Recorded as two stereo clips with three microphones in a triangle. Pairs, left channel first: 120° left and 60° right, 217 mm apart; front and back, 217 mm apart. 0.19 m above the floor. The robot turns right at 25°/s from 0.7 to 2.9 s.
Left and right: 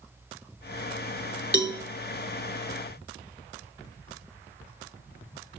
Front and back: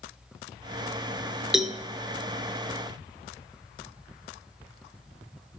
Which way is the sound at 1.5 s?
90° right.